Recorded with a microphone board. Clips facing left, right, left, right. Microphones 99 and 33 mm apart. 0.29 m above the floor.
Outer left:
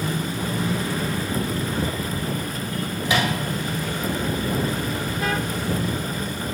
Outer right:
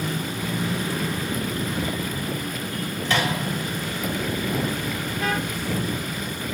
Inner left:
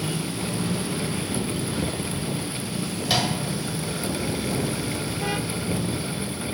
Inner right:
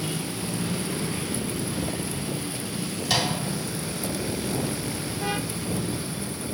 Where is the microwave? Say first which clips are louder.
Outer left 1 dB, inner left 1 dB; 10° left (ahead or behind), 1.3 m.